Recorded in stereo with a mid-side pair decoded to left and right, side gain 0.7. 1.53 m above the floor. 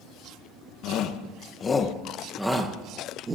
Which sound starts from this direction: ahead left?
A shout, at 0.8 s.